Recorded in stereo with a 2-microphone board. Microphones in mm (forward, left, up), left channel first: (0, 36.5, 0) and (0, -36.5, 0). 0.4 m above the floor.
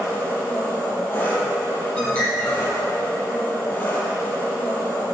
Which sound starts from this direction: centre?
A bird, at 2.0 s.